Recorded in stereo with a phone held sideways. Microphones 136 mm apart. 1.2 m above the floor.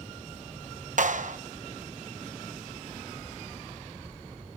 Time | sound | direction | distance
1.0 | a clap | 65° right (ahead or behind) | 0.9 m